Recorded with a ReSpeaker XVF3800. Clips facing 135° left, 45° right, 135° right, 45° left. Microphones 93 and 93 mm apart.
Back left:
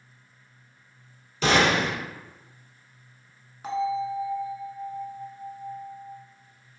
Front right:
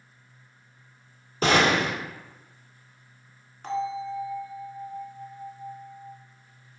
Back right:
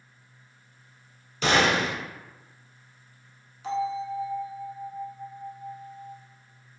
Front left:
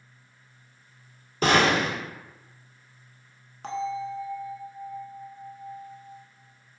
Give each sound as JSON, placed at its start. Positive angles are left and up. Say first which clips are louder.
{"t": 1.4, "sound": "a gunshot", "louder": "even, front left 2 dB", "azimuth_deg": 0, "distance_m": 1.0}
{"t": 3.6, "sound": "a bell", "louder": "back left 3 dB, back right 2 dB", "azimuth_deg": 55, "distance_m": 0.7}